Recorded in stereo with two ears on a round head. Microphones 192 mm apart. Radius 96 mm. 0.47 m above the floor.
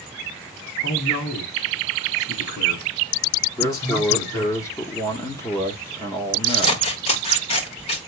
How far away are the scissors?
About 1.3 m.